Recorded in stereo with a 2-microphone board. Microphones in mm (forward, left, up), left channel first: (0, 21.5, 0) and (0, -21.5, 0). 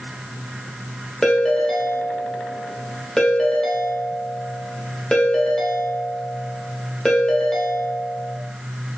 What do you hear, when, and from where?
1.2 s a ringtone: 15° left (ahead or behind), 0.6 m